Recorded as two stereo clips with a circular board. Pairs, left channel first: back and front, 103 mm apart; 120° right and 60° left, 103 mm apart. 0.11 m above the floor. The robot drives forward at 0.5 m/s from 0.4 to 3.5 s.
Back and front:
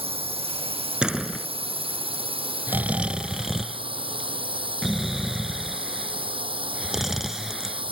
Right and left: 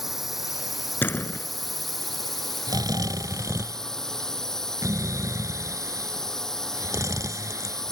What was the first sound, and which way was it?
A drone, 30° right.